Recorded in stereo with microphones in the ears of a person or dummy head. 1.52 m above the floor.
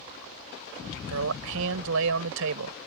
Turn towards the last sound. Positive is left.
turn(degrees=-80)